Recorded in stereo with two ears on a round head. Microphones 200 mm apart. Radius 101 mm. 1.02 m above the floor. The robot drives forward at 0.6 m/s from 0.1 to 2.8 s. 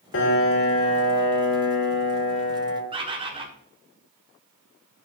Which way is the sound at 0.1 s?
55° left (ahead or behind).